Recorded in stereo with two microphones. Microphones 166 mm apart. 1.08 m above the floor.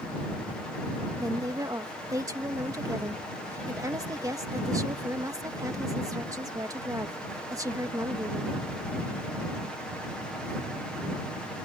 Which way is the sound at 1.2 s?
20° right (ahead or behind).